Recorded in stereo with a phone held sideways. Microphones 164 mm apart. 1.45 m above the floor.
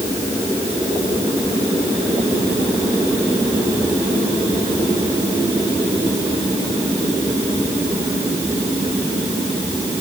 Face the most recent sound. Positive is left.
No sound to turn to.